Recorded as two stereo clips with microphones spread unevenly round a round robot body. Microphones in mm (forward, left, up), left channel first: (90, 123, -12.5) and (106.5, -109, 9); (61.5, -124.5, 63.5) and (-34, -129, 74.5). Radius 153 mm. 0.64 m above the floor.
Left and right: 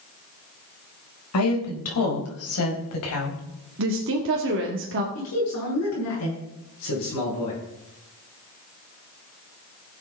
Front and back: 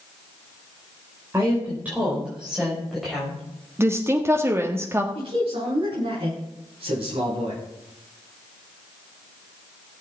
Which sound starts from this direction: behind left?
A man speaking, at 5.2 s.